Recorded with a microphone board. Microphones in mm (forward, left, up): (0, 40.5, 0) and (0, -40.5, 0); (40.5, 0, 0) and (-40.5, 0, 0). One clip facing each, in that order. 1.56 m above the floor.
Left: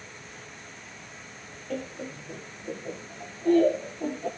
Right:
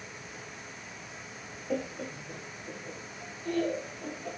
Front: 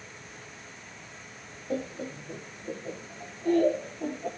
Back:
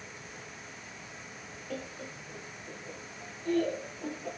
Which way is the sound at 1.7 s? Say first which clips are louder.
Right 1 dB, front 8 dB; 25° right.